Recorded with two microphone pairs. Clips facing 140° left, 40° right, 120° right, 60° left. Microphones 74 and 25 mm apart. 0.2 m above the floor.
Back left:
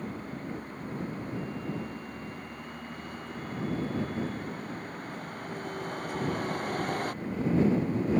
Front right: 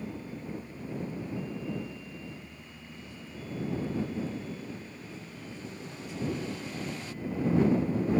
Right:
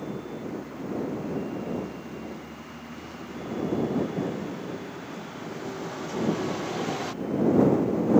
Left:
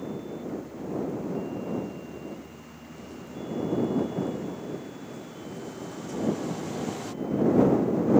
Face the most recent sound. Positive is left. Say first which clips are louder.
# back left 2 dB, even
turn(degrees=175)